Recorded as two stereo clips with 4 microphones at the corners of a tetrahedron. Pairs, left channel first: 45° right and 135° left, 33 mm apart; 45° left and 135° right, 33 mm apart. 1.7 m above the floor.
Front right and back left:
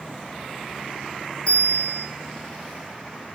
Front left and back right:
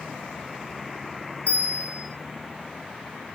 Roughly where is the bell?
Ahead.